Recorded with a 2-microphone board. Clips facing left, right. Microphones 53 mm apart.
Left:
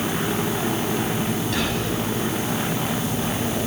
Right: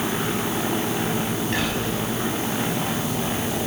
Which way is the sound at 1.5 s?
35° right (ahead or behind).